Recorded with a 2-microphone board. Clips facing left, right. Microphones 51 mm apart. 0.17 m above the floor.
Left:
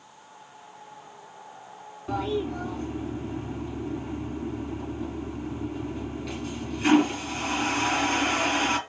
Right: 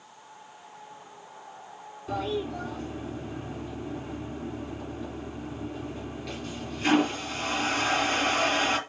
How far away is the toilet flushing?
About 3.5 m.